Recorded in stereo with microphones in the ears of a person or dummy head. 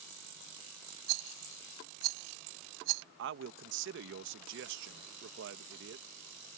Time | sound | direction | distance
1.1 | a rattle | 60° right (ahead or behind) | ?
3.2 | a man speaking | 65° right (ahead or behind) | ?